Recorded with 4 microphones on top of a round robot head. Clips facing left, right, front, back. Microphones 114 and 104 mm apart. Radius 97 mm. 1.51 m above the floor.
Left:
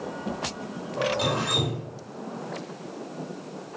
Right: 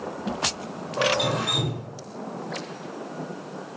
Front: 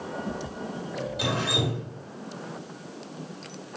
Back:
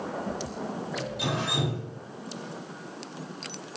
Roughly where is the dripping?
Ahead left.